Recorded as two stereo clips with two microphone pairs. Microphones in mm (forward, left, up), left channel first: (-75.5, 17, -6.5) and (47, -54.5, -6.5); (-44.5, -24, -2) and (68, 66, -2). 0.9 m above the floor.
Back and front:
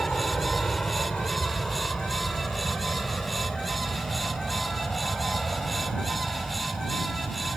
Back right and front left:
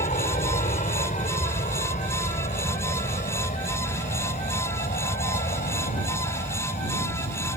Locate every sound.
0.0 s an aircraft: 125° right; by 7.6 s 120° right